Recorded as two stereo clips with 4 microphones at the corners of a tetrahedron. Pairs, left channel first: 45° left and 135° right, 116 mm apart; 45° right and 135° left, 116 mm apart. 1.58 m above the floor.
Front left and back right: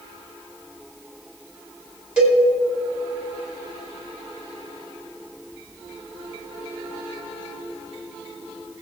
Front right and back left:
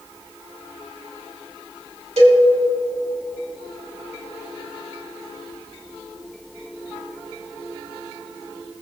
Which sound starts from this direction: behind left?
A cowbell, at 2.2 s.